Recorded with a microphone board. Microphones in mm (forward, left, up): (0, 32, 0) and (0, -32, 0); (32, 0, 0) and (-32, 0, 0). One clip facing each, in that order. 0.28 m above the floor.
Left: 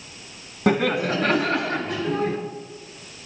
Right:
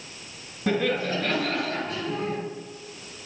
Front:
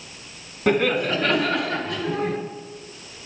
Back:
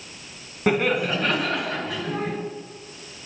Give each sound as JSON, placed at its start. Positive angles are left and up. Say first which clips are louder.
{"t": 0.7, "sound": "laughter", "louder": "left 4 dB, front 1 dB", "azimuth_deg": 95, "distance_m": 2.0}